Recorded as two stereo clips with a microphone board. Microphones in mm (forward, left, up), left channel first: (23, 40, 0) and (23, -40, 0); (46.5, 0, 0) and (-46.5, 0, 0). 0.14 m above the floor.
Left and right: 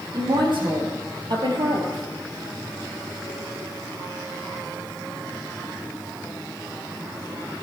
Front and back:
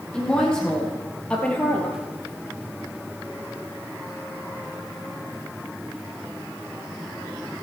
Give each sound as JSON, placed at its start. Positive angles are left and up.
{"t": 0.1, "sound": "a woman speaking", "azimuth_deg": -80, "distance_m": 4.0}